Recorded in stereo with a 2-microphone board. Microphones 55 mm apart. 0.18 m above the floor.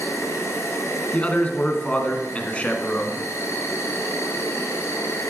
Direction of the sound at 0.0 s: 60° left (ahead or behind).